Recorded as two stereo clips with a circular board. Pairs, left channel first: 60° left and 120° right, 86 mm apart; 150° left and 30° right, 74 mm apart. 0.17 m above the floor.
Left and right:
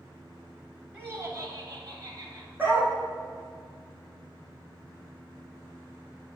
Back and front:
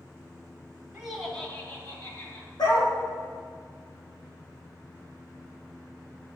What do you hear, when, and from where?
0.9 s laughter: 80° right, 1.1 m; by 2.5 s 165° right, 2.5 m
2.6 s a dog barking: 170° left, 3 m